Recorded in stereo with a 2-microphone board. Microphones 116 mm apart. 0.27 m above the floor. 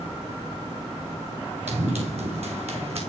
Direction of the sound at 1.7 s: 65° right (ahead or behind).